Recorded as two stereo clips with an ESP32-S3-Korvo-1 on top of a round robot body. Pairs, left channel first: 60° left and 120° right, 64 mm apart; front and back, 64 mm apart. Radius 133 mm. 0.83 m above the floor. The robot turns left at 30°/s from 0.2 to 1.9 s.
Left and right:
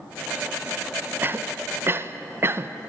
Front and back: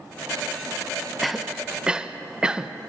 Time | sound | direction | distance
1.2 | a cough | 90° right | 0.8 m